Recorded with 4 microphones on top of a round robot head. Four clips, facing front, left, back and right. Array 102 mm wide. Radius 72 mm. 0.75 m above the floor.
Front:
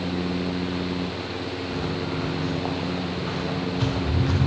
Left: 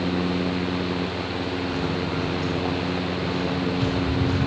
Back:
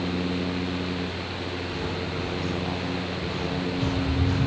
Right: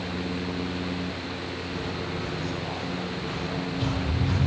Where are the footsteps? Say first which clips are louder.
Left 6 dB, front 2 dB; 40° left, 4.5 m; by 4.5 s straight ahead, 6 m.